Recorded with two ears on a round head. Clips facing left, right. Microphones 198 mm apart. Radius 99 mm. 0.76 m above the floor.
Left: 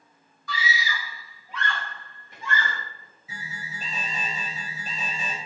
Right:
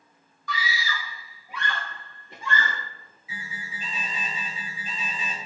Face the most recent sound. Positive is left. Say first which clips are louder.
# even
turn(degrees=35)  # may be behind; listen again after turning